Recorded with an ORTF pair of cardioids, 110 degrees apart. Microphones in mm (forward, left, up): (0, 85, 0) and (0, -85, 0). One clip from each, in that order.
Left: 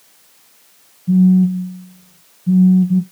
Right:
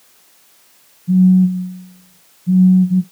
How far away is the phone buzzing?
About 0.8 m.